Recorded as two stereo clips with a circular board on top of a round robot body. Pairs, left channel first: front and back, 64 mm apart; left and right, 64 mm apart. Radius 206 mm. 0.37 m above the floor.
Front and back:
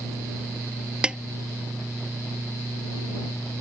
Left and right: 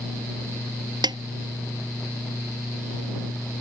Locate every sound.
1.0 s a snare drum: 100° right